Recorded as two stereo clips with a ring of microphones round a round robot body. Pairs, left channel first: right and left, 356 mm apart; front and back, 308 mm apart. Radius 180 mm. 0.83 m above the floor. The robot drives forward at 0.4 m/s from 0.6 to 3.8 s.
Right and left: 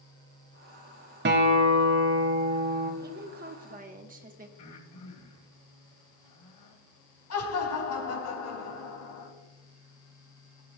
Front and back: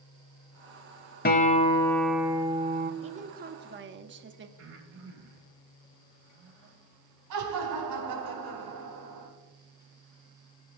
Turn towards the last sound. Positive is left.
turn(degrees=-140)